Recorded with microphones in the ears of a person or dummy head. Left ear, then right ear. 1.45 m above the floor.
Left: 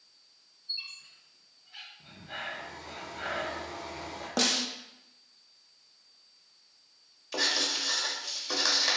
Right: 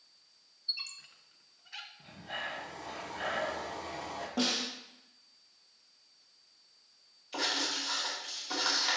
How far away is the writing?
About 1.5 m.